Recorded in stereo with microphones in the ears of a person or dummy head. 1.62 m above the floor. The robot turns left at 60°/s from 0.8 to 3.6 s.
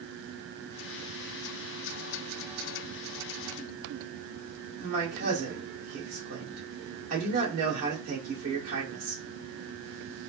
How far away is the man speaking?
About 2 m.